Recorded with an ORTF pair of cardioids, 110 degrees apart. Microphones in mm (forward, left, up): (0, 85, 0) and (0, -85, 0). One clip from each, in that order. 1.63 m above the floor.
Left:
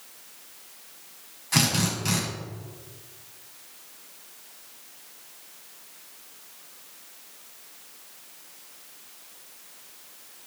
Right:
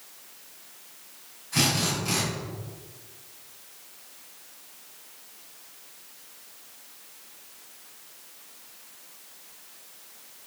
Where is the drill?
70° left, 6 m.